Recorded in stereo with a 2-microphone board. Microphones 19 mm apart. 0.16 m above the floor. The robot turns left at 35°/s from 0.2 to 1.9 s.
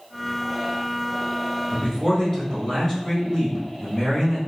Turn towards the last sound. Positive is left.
turn(degrees=25)  # may be behind; listen again after turning